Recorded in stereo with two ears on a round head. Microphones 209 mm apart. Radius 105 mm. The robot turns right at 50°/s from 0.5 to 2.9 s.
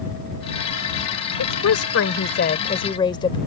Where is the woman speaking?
85° left; by 3.4 s 160° left.